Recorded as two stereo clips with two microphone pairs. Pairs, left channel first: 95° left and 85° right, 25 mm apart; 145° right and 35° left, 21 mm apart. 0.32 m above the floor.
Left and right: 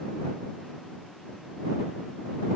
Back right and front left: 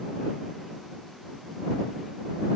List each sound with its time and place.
Only background noise.